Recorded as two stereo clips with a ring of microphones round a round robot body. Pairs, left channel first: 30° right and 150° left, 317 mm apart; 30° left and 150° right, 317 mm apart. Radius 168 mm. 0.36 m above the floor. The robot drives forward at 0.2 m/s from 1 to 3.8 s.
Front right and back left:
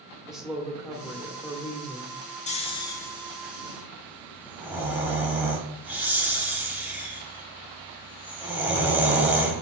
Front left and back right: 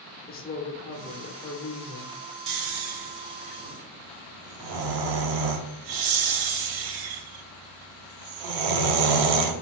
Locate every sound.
0.3 s a woman speaking: 65° left, 1.0 m; by 2.2 s 90° left, 0.9 m
2.5 s snoring: 100° right, 0.5 m; by 9.6 s 125° right, 0.6 m